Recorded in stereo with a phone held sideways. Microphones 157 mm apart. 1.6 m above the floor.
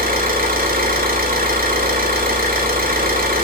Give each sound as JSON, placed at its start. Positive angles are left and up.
{"t": 0.0, "sound": "an engine running", "side_deg": -60, "distance_m": 3.5}